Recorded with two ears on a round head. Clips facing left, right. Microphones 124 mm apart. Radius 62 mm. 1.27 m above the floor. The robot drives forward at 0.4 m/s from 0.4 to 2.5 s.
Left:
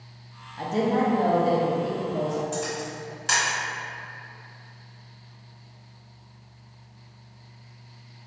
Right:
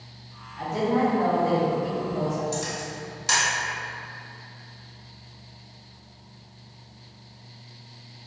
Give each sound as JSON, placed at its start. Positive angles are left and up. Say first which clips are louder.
{"t": 0.6, "sound": "a woman speaking", "louder": "even", "side_deg": 30, "distance_m": 0.5}
{"t": 2.5, "sound": "a camera shutter", "louder": "left 1 dB", "side_deg": -20, "distance_m": 2.0}